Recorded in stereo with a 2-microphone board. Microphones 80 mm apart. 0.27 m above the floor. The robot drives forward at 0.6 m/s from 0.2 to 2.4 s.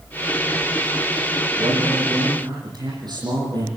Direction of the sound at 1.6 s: 65° right (ahead or behind).